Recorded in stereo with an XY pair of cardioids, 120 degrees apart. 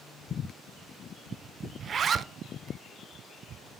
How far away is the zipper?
About 0.5 m.